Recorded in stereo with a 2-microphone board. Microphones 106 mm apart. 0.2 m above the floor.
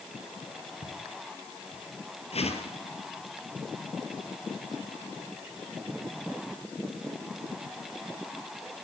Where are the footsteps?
50° left (ahead or behind), 4.5 m; by 1.8 s 65° left (ahead or behind), 4.5 m.